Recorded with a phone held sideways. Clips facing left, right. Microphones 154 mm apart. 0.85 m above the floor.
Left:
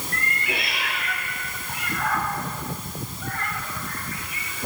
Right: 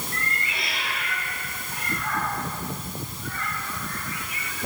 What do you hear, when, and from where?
0.1 s a cat meowing: 60° left (ahead or behind), 6 m; by 4.5 s 30° left (ahead or behind), 3 m